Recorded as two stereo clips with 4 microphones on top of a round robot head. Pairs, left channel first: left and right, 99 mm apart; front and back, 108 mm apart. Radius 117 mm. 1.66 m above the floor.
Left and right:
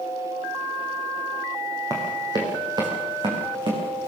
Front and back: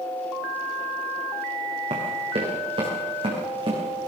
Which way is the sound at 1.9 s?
145° right.